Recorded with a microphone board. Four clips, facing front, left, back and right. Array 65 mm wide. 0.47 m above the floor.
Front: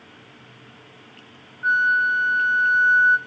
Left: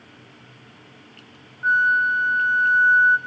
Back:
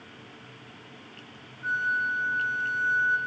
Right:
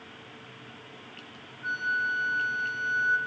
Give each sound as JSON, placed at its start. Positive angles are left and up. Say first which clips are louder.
{"t": 1.6, "sound": "a flute", "louder": "left 11 dB, front 8 dB", "azimuth_deg": 50, "distance_m": 1.4}